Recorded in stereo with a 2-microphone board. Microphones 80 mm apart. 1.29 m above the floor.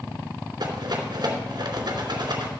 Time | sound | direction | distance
0.6 | a rattle | 70° right (ahead or behind) | 3 m